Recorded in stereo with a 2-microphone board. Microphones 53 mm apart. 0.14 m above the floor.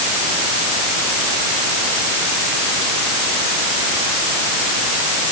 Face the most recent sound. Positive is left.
No sound to turn to.